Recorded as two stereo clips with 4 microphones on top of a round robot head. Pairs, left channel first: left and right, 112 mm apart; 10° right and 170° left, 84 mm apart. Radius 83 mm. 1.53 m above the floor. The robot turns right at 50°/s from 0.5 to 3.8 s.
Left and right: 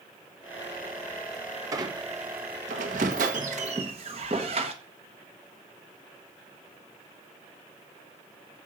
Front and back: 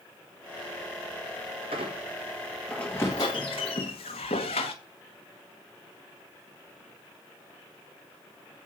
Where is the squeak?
145° right, 1.1 m; by 4.7 s 40° right, 1.1 m.